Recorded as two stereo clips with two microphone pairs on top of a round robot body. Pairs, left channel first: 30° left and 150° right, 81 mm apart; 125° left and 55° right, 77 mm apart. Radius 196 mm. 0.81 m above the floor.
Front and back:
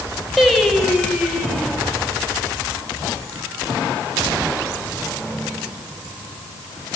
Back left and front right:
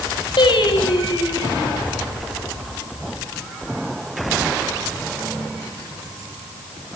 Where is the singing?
120° left, 6 m.